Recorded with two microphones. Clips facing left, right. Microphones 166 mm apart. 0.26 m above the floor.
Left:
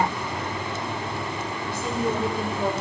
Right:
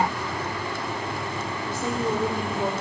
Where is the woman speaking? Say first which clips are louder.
Even; 50° right (ahead or behind), 7 m.